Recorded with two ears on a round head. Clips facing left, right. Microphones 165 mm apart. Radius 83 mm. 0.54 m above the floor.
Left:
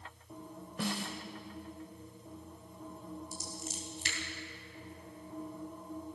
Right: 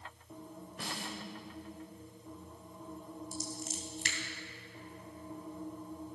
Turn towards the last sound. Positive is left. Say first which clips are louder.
# right 2 dB
turn(degrees=-45)  # may be behind; listen again after turning